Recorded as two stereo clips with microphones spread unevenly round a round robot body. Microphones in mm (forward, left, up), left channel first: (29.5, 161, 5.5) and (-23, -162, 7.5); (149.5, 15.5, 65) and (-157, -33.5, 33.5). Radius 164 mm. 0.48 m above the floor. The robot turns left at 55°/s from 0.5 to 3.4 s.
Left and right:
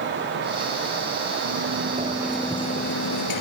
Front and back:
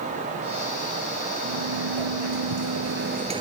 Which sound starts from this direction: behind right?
A sliding door, at 1.4 s.